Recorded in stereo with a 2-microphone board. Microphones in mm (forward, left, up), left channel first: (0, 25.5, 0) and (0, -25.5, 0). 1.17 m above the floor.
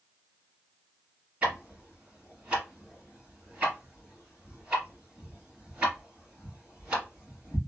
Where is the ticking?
20° right (ahead or behind), 1.9 m.